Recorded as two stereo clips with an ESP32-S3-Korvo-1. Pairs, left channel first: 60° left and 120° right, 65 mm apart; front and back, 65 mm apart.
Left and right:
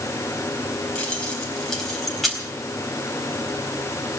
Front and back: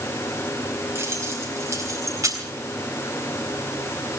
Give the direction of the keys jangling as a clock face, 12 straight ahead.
7 o'clock.